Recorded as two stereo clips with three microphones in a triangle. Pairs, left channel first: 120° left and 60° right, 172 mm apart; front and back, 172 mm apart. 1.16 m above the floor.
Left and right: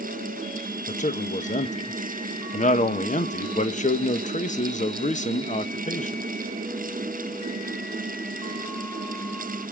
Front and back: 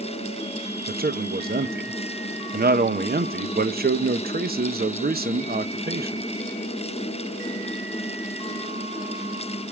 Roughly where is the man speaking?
Behind.